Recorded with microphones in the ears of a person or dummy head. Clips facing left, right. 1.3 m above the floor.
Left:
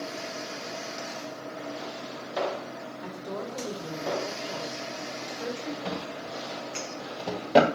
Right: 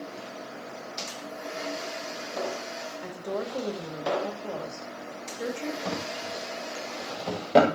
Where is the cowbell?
No cowbell in this recording.